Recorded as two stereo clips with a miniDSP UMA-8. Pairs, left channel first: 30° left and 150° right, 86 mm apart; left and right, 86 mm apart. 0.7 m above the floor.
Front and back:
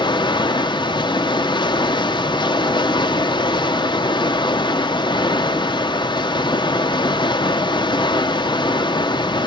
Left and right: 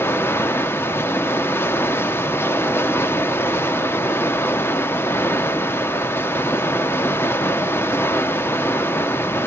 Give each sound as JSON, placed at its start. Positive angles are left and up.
{"t": 0.0, "sound": "running water", "azimuth_deg": 30, "distance_m": 0.9}